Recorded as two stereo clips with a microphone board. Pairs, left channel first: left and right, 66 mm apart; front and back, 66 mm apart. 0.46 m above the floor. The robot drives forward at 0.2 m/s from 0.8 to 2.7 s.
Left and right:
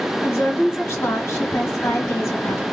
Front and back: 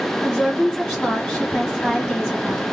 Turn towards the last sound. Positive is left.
turn(degrees=95)